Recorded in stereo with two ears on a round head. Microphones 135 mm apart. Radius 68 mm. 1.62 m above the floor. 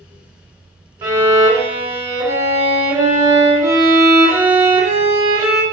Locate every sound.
1.0 s a violin: 20° right (ahead or behind), 1.0 m